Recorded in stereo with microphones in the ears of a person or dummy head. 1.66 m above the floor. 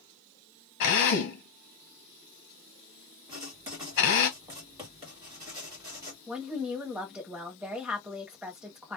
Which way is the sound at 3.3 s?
15° right (ahead or behind).